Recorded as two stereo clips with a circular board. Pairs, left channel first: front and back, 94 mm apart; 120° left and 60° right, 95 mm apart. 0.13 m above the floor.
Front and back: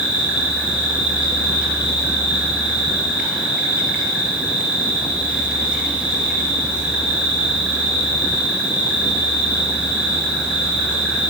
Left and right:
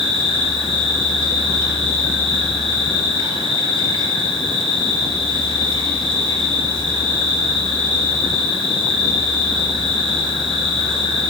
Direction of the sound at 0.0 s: 100° left.